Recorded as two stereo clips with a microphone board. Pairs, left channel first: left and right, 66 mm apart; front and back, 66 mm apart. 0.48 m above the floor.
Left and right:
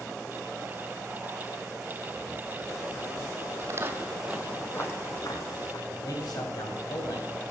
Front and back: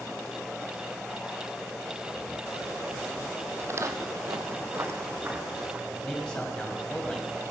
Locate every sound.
3.6 s footsteps: 130° right, 1.1 m; by 5.8 s 110° left, 1.6 m
5.9 s a man speaking: 75° left, 3 m